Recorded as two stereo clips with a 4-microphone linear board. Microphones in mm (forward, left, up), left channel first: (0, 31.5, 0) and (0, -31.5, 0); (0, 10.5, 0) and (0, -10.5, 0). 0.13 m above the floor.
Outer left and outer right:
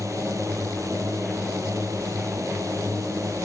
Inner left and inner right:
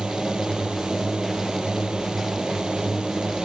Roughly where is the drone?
Right.